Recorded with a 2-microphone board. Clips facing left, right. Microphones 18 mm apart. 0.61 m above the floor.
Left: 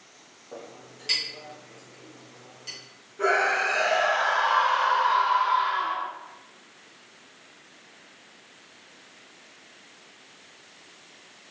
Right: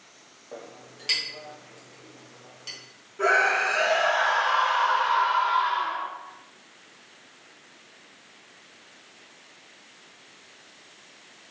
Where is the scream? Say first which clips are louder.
Right 2 dB; 10° right (ahead or behind), 0.7 m.